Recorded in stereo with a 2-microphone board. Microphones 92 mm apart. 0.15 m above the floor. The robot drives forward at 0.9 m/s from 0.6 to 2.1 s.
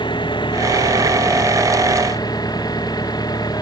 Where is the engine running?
60° left (ahead or behind); by 3.6 s 50° left (ahead or behind).